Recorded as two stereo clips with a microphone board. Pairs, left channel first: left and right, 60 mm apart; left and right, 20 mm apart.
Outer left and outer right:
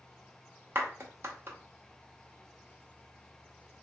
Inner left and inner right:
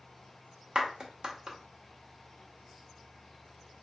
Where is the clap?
40° right (ahead or behind), 0.6 m.